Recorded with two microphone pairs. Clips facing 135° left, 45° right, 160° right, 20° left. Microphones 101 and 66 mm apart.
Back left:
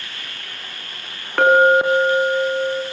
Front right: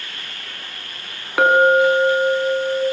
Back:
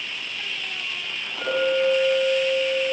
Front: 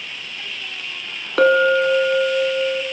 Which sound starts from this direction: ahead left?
A clink, at 1.4 s.